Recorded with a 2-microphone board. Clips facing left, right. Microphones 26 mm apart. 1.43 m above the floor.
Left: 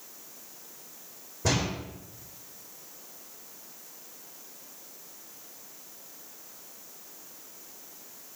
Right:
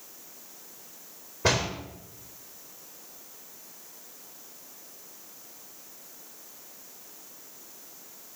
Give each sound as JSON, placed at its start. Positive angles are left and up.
{"t": 1.4, "sound": "a door slam", "side_deg": -40, "distance_m": 4.0}